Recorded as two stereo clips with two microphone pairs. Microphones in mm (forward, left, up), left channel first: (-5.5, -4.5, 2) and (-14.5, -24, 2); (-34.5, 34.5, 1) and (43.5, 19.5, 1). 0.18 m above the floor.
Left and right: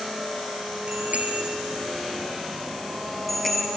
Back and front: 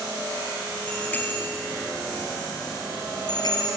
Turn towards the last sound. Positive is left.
turn(degrees=140)